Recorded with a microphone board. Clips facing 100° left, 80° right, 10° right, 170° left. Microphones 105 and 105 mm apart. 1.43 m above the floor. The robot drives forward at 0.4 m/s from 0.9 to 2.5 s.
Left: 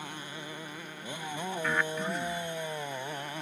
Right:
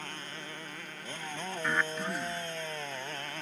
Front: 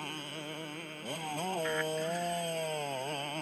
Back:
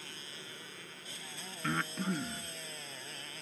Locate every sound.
0.0 s a motorcycle: 20° left
1.6 s breathing: 165° right